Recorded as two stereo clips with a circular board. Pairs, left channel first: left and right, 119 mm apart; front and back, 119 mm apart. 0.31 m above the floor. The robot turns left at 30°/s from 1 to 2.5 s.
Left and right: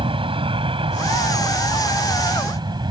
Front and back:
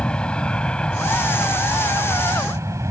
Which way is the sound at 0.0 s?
80° right.